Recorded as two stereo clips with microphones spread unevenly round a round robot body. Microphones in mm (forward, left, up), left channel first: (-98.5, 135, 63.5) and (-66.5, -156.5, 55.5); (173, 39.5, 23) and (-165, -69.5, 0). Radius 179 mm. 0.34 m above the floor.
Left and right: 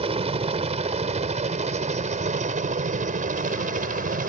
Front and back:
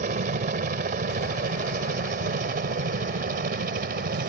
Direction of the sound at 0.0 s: 125° right.